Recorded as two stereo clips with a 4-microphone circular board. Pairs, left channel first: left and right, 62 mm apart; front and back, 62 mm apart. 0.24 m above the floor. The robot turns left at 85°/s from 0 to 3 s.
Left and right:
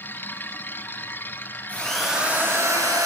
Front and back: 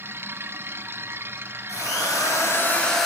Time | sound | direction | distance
1.7 | a drill | 25° left | 3 m